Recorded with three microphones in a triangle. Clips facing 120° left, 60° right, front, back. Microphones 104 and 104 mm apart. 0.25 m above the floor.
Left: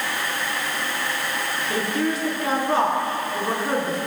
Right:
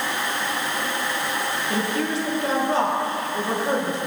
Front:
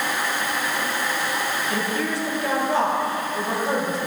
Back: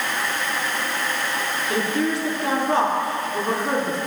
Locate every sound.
1.7 s a woman speaking: 160° left, 3.5 m